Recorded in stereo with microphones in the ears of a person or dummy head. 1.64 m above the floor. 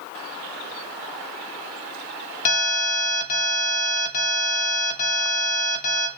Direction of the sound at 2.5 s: 40° left (ahead or behind).